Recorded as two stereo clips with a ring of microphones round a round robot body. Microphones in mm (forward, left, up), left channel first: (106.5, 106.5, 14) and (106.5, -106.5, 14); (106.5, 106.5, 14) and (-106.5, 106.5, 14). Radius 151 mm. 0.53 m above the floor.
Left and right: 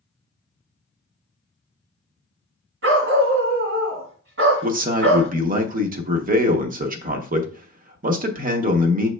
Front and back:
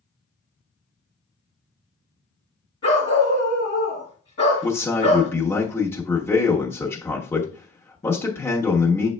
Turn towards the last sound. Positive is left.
turn(degrees=-75)